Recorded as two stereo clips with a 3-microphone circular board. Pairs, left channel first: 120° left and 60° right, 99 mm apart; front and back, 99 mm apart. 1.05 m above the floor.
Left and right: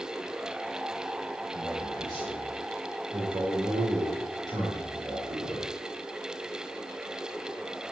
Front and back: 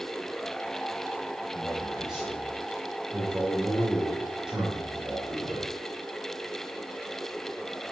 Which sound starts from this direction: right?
A man speaking, at 1.5 s.